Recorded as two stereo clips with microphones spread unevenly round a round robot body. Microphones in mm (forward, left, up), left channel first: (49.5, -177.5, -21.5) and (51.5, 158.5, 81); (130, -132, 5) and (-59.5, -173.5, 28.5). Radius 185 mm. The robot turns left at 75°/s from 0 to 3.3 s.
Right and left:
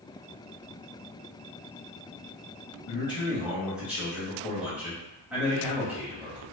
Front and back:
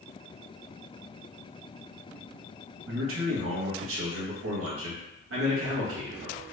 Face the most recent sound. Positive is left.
turn(degrees=180)